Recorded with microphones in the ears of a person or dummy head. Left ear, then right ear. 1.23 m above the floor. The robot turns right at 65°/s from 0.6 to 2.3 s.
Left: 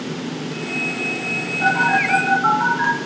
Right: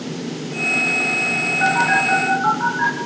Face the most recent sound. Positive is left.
turn(degrees=0)  # may be behind; listen again after turning